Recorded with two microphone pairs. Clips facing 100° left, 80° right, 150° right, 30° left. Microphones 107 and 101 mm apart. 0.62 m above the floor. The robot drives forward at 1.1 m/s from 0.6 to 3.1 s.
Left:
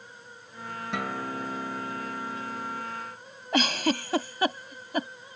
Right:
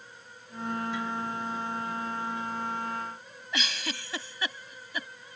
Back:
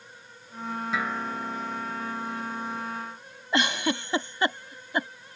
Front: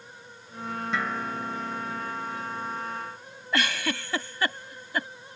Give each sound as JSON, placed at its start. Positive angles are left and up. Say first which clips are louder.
{"t": 0.9, "sound": "a guitar", "louder": "left 1 dB, front 1 dB", "azimuth_deg": 125}
{"t": 3.5, "sound": "a giggle", "louder": "left 10 dB, back 2 dB", "azimuth_deg": 140}